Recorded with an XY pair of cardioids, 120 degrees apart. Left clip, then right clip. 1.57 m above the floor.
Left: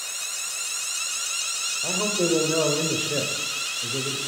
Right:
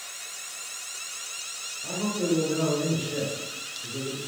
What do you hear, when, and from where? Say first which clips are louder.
1.8 s a man speaking: left 4 dB; 65° left, 0.8 m